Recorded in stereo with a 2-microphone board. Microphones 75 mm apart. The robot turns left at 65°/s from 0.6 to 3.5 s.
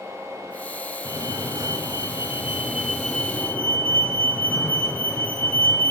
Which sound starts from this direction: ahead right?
A fire alarm, at 1.1 s.